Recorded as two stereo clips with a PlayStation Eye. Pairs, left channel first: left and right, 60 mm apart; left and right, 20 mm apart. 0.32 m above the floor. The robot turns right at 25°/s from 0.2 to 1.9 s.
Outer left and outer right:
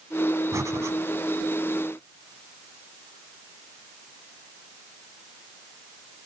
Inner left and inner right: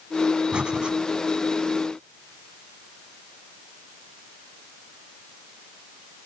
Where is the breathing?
60° right (ahead or behind), 1.0 m; by 0.9 s 50° right (ahead or behind), 1.0 m.